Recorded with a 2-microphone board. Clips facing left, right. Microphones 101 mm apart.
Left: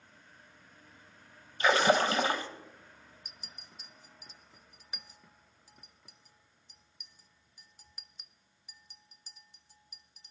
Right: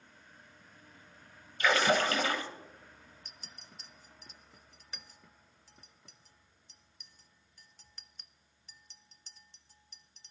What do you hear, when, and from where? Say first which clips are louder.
1.6 s a splash: left 2 dB; 30° left (ahead or behind), 1.3 m
3.2 s a clink: even; 10° left (ahead or behind), 0.5 m